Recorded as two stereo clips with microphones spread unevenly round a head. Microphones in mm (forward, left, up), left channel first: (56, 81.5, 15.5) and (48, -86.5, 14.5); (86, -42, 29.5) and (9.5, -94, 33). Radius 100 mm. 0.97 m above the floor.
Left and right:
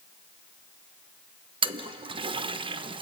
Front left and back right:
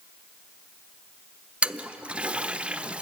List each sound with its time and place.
1.6 s a toilet flushing: 75° right, 0.9 m